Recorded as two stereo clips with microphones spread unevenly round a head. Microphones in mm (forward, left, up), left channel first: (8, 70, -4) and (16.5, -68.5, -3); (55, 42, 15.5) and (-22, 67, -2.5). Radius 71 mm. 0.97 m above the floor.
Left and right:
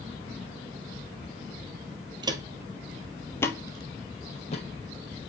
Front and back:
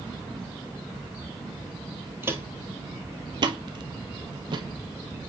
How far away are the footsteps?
About 1.1 m.